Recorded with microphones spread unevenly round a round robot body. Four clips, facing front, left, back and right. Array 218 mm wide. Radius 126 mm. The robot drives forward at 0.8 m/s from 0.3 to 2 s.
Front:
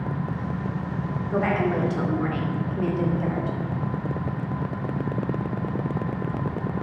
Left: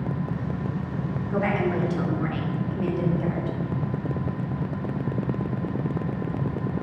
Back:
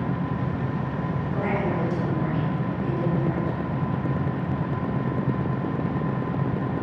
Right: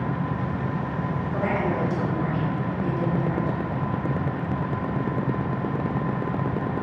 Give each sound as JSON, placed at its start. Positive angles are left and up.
{"t": 1.3, "sound": "a woman speaking", "azimuth_deg": 10, "distance_m": 2.5}